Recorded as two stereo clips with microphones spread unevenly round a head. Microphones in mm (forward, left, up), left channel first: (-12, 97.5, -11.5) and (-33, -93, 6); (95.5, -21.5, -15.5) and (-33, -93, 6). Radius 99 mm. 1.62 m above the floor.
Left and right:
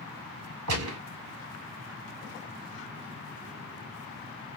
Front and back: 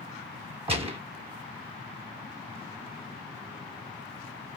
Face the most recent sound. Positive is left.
turn(degrees=-95)